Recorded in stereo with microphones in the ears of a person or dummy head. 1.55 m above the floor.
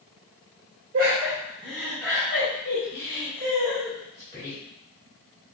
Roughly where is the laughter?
Right.